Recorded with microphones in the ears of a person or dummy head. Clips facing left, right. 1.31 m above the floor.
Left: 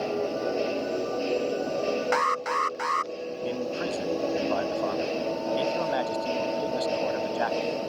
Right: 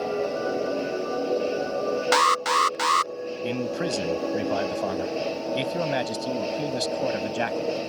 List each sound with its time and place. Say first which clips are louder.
2.1 s an alarm: right 3 dB; 55° right (ahead or behind)
3.4 s a man speaking: right 3 dB; 45° right (ahead or behind)